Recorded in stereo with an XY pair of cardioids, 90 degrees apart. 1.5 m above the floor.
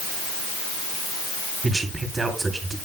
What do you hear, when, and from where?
1.6 s a man speaking: 30° right, 3.5 m